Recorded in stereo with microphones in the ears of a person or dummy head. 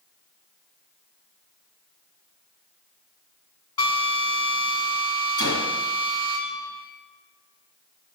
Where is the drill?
10° left (ahead or behind), 3.5 m.